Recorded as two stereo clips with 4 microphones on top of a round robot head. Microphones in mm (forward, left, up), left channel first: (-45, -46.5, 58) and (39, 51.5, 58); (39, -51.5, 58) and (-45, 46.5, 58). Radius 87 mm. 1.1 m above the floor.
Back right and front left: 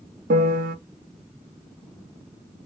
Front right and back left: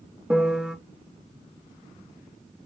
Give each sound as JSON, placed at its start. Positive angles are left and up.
{"t": 0.3, "sound": "a piano", "azimuth_deg": 45, "distance_m": 0.5}